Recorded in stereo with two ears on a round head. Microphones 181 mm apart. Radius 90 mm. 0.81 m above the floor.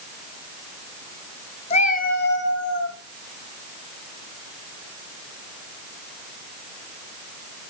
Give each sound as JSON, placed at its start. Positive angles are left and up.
{"t": 1.7, "sound": "a cat meowing", "side_deg": 35, "distance_m": 1.2}